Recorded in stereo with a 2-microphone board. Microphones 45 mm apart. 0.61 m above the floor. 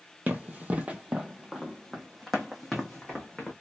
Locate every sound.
0.3 s running footsteps: 40° right (ahead or behind), 0.8 m; by 3.5 s 5° left (ahead or behind), 1.6 m